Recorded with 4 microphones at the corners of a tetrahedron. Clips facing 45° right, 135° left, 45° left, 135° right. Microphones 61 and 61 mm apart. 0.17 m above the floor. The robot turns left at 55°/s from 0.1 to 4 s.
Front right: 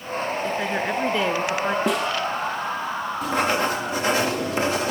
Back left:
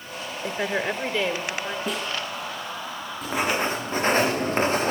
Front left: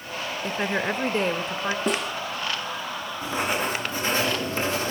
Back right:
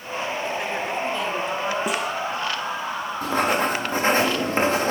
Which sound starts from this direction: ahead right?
A snare drum, at 1.9 s.